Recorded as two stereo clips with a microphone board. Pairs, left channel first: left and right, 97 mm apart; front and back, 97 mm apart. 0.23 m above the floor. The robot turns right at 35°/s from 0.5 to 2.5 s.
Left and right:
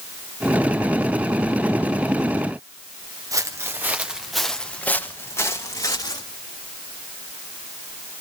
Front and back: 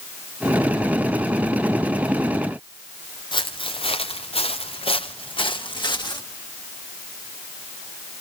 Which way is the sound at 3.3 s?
35° right.